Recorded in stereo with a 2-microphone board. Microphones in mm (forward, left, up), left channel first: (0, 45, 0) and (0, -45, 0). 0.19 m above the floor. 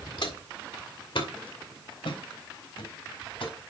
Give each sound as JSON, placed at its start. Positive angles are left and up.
{"t": 0.2, "sound": "footsteps", "side_deg": 70, "distance_m": 2.5}